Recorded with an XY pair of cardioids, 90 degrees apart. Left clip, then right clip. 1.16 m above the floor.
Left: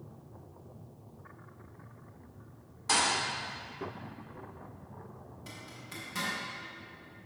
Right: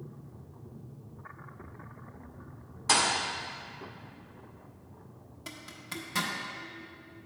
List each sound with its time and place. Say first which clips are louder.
2.9 s a thud: right 2 dB; 35° right, 1.7 m
5.5 s a zipper: right 5 dB; 55° right, 1.1 m